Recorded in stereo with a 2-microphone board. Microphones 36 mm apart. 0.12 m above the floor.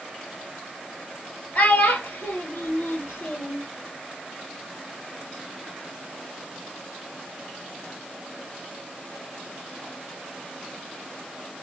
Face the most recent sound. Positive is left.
turn(degrees=55)  # may be behind; listen again after turning